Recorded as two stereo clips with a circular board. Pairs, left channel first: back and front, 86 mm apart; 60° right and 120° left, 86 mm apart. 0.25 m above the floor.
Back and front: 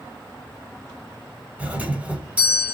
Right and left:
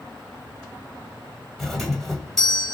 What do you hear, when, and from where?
1.6 s a doorbell: 20° left, 1.6 m